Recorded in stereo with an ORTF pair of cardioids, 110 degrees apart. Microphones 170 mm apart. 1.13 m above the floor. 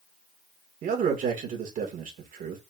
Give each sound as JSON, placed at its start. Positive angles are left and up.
{"t": 0.8, "sound": "a man speaking", "azimuth_deg": -55, "distance_m": 1.9}